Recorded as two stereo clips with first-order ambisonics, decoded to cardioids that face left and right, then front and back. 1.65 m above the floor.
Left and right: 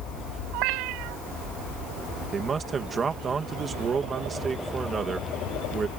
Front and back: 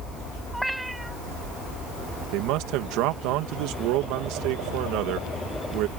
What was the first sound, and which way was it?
A cat meowing, 95° right.